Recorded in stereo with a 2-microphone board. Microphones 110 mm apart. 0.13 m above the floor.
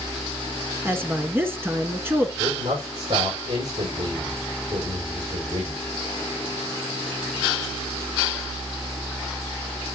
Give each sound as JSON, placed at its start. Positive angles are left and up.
{"t": 0.8, "sound": "a woman speaking", "side_deg": -20, "distance_m": 1.1}
{"t": 2.4, "sound": "a man speaking", "side_deg": -75, "distance_m": 5.5}